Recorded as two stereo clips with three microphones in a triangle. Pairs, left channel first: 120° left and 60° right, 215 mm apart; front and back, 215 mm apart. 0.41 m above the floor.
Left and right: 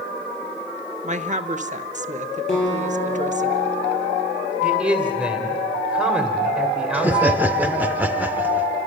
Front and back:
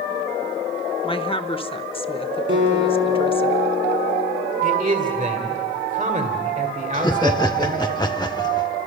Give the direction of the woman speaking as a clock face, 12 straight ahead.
1 o'clock.